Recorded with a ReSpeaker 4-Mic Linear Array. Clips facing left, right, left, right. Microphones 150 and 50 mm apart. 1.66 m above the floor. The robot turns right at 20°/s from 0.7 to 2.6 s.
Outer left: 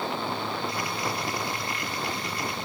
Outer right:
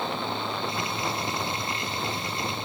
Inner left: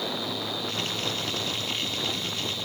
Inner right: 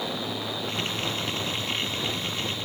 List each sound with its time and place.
Only background noise.